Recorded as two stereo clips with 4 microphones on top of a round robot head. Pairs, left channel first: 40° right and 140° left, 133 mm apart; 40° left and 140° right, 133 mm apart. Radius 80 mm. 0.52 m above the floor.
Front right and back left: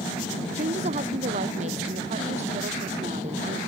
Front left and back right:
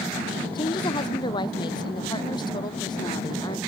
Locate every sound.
0.6 s a woman speaking: 95° left; by 3.6 s 100° left